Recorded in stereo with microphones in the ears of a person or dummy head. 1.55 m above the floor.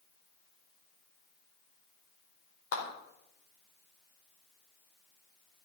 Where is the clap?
75° left (ahead or behind), 4 m.